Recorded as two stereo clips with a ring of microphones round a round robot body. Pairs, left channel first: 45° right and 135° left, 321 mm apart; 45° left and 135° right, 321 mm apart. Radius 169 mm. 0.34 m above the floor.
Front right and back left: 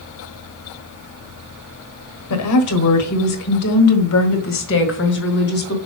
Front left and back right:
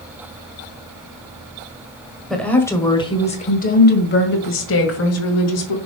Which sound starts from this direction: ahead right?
A woman speaking, at 2.3 s.